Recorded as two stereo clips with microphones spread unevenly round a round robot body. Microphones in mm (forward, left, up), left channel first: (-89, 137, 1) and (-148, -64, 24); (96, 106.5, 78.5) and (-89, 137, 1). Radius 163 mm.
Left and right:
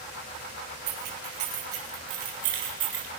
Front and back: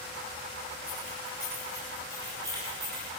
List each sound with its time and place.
0.9 s keys jangling: 100° right, 9.5 m; by 3.1 s 115° right, 7.5 m